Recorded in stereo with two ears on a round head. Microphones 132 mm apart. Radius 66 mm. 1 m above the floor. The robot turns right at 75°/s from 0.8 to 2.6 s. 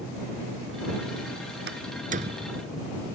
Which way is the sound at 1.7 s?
90° right.